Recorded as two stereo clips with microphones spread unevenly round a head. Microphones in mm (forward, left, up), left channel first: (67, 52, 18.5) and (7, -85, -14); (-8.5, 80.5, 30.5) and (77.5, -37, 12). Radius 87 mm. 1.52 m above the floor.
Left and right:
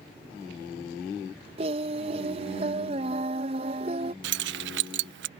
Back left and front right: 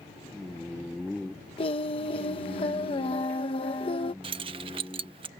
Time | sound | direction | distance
1.6 | singing | 170° right | ?
4.2 | keys jangling | 120° right | ?